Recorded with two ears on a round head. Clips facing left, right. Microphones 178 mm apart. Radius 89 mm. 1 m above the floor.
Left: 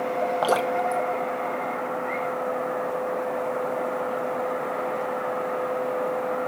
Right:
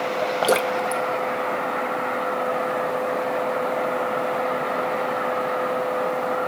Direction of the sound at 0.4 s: 30° right (ahead or behind).